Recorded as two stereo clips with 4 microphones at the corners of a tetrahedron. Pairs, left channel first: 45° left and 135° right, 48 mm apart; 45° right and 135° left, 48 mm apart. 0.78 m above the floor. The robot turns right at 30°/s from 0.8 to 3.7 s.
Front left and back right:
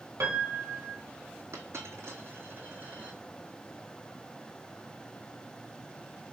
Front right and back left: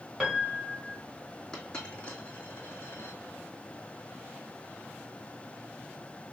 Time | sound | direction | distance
0.2 | a piano | 145° right | 1.6 m
1.5 | a dropped coin | 115° right | 2.5 m